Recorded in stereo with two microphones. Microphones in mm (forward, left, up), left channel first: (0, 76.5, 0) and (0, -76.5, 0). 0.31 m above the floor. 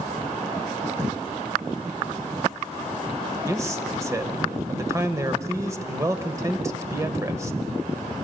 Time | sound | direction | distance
3.5 | a man speaking | 20° right (ahead or behind) | 1.0 m